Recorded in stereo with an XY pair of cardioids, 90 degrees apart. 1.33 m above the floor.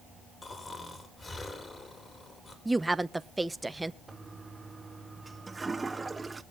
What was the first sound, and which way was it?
Snoring, 35° left.